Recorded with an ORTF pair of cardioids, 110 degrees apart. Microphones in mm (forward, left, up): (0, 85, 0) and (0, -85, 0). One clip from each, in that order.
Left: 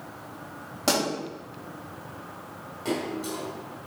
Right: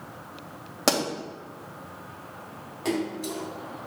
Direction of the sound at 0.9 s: 55° right.